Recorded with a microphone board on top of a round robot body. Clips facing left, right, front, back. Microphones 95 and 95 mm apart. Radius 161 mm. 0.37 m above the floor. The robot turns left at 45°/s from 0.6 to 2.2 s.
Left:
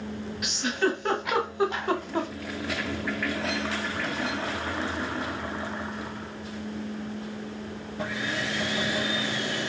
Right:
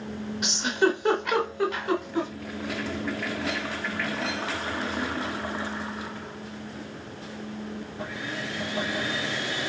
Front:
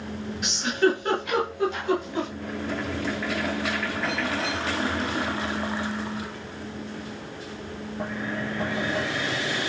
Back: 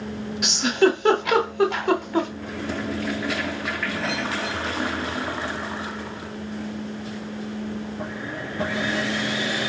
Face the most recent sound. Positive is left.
turn(degrees=135)